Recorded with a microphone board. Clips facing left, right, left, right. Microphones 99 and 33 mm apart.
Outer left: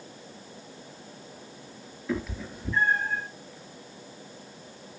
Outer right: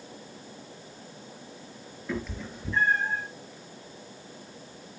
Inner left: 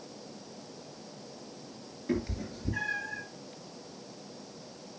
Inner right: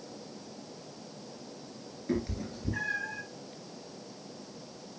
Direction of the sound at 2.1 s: 5° left (ahead or behind).